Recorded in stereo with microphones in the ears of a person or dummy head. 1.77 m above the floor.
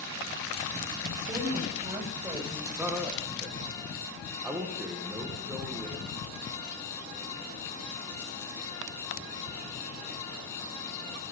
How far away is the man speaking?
About 2 m.